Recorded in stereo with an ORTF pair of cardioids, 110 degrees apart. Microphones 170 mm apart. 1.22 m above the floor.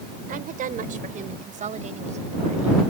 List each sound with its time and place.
0.3 s a woman speaking: 55° right; by 2.9 s 40° right